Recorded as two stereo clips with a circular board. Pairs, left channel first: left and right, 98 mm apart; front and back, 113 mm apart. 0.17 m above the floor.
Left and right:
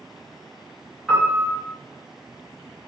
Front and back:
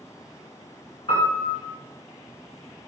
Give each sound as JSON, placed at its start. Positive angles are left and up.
{"t": 1.1, "sound": "a piano", "azimuth_deg": 0, "distance_m": 1.1}